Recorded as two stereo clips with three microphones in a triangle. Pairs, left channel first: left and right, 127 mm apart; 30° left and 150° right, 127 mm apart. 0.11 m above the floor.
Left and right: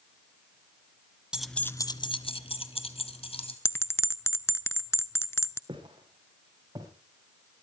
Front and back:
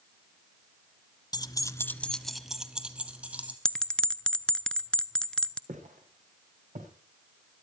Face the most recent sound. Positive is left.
turn(degrees=-150)